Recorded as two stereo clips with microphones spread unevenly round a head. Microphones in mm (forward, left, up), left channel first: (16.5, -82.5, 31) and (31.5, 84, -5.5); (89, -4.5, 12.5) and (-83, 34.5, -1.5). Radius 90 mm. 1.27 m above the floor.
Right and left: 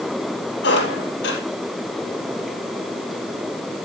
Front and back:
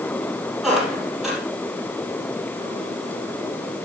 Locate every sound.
0.6 s a squeak: 105° right, 4 m